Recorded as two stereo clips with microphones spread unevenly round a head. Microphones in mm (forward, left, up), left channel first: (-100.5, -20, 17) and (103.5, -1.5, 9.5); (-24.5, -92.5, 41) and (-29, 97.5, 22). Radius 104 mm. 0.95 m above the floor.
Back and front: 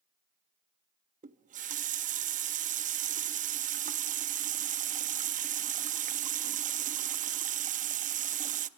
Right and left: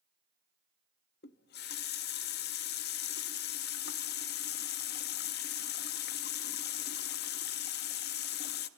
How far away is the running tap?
About 0.6 m.